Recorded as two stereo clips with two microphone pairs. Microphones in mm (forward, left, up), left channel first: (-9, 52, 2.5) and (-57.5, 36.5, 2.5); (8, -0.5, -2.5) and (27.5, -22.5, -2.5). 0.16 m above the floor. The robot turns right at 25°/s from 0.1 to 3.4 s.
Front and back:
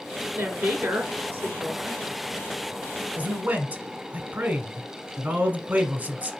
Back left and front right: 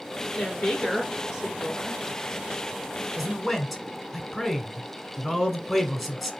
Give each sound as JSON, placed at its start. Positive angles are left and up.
{"t": 0.3, "sound": "a woman speaking", "azimuth_deg": -170, "distance_m": 2.5}
{"t": 3.2, "sound": "a man speaking", "azimuth_deg": -145, "distance_m": 1.2}